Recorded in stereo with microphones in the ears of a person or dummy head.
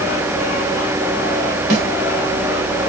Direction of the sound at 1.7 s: 80° right.